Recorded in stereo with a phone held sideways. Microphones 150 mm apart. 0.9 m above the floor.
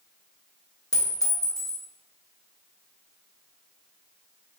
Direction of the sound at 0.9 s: 20° left (ahead or behind).